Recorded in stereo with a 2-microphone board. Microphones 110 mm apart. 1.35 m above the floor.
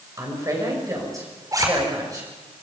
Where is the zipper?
35° right (ahead or behind), 4 m.